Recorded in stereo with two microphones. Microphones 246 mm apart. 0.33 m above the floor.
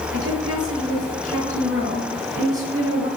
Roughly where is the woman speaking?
Right.